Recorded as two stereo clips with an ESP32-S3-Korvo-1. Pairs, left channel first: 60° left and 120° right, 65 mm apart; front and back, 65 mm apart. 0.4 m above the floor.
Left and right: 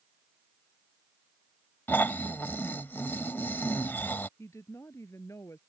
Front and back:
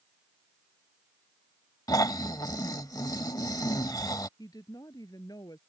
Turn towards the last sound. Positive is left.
turn(degrees=15)